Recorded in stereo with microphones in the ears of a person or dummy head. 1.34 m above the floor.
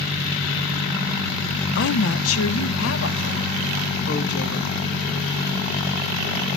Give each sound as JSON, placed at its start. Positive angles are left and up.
{"t": 1.8, "sound": "a woman speaking", "side_deg": 65, "distance_m": 0.8}